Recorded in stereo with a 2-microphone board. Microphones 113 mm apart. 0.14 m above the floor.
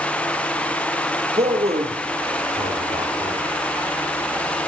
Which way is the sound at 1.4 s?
70° right (ahead or behind).